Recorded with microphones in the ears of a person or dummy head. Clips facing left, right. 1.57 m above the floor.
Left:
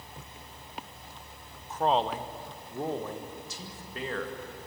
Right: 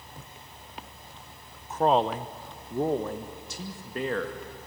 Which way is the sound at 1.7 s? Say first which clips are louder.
Right 4 dB; 45° right (ahead or behind).